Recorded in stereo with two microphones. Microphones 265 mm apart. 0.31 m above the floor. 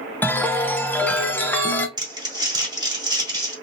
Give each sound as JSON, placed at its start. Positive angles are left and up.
{"t": 0.2, "sound": "a chime", "side_deg": 5, "distance_m": 0.6}
{"t": 2.0, "sound": "crumpling", "side_deg": -15, "distance_m": 1.8}